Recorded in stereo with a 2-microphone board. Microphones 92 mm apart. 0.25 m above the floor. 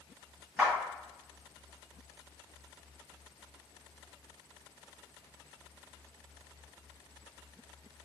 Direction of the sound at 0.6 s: 15° right (ahead or behind).